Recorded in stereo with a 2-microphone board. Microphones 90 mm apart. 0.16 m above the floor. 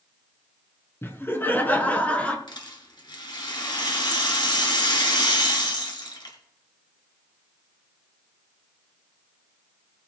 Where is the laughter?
25° left (ahead or behind), 2 m; by 2.4 s 15° left (ahead or behind), 2.5 m.